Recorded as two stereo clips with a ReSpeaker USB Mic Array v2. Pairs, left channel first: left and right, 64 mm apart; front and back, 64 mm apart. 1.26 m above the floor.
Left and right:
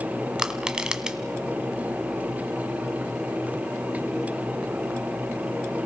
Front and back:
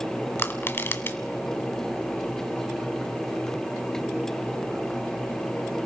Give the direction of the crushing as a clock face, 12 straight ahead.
1 o'clock.